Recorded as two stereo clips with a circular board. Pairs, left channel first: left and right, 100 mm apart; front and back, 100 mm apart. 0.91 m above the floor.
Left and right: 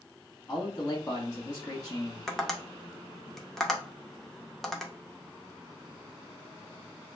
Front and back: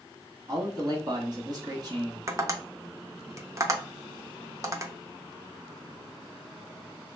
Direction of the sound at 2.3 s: 175° left.